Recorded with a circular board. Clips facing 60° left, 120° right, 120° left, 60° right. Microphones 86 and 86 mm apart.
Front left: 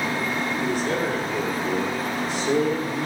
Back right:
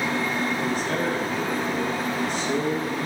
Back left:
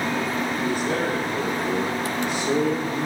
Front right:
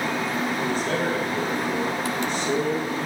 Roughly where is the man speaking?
Ahead left.